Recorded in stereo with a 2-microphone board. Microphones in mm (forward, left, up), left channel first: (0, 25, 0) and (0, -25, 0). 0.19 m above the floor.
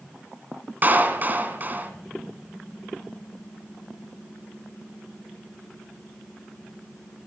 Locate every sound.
0.8 s a clap: 40° right (ahead or behind), 1.9 m